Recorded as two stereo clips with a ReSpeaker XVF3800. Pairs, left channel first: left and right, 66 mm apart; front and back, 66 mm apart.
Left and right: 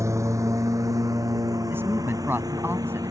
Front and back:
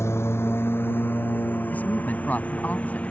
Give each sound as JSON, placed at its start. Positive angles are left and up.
{"t": 0.0, "sound": "a lawn mower", "azimuth_deg": -50}
{"t": 1.7, "sound": "a woman speaking", "azimuth_deg": -55}